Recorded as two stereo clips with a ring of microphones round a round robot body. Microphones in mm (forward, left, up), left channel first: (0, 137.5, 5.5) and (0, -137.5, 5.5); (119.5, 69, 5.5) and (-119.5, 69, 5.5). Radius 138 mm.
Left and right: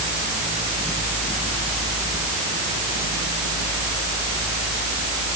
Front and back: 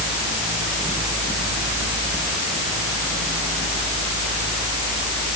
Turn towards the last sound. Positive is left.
No sound to turn to.